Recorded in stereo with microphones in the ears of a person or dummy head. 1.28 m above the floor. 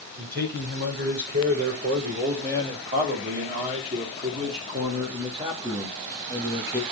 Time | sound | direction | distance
0.2 | a man speaking | 60° right (ahead or behind) | 5.5 m